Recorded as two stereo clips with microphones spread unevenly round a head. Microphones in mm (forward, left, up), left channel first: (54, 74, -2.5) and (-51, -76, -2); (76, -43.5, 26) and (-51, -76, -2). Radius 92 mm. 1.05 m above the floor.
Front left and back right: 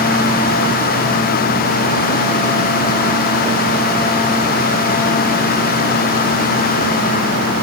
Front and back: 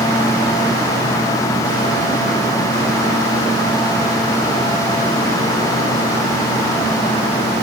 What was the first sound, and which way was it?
Only background noise.